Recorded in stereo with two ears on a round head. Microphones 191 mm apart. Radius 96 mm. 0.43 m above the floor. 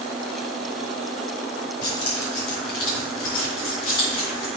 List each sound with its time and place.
1.8 s keys jangling: 80° left, 4 m; by 4.5 s 65° left (ahead or behind), 4.5 m